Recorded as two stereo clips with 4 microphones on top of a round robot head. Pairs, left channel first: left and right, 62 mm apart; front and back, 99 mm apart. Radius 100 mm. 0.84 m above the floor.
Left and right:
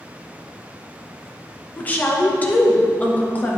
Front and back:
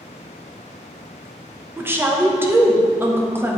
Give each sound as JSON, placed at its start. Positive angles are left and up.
{"t": 1.8, "sound": "a woman speaking", "azimuth_deg": 130, "distance_m": 1.1}